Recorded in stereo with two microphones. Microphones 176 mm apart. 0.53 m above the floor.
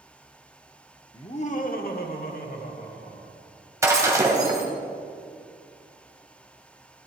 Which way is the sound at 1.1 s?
25° left (ahead or behind).